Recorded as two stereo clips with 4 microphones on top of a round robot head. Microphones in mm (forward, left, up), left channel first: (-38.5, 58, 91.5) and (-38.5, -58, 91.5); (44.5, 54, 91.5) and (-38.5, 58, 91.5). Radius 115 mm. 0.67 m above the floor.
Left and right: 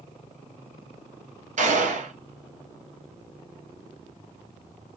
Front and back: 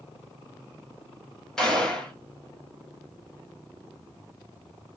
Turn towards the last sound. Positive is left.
turn(degrees=-90)